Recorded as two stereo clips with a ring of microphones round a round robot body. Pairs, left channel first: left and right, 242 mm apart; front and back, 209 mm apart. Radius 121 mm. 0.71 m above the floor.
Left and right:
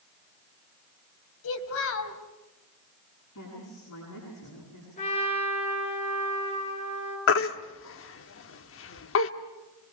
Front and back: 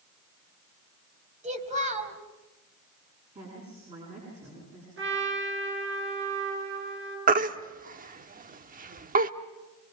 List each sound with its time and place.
1.4 s a child speaking: 125° left, 3 m
3.4 s a woman speaking: 125° left, 9 m
5.0 s a trumpet: 155° left, 9.5 m
7.3 s a baby crying: 130° left, 1.0 m